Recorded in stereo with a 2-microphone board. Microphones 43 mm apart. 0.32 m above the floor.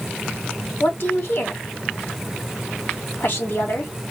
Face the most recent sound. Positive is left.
turn(degrees=55)  # may be behind; listen again after turning